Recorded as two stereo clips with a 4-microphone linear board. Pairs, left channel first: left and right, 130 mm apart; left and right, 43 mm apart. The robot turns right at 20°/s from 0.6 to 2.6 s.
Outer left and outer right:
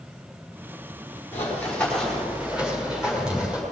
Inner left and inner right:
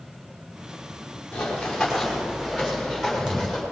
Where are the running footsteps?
15° left (ahead or behind), 5 m; by 3.6 s 5° right (ahead or behind), 6.5 m.